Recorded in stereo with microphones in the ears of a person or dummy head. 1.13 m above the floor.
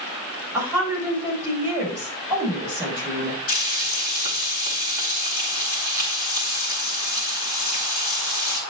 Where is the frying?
45° left (ahead or behind), 4 m.